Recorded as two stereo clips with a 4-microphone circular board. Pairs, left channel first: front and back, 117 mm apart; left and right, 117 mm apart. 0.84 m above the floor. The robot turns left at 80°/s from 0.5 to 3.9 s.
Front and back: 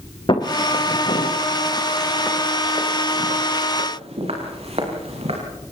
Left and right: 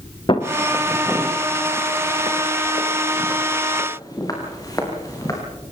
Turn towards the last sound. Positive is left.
turn(degrees=150)